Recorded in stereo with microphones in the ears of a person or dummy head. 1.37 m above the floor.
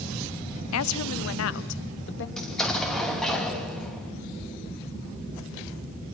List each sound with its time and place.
0.7 s a woman speaking: 80° left, 0.8 m; by 2.3 s 65° left (ahead or behind), 1.5 m
2.4 s an explosion: 5° left (ahead or behind), 2.5 m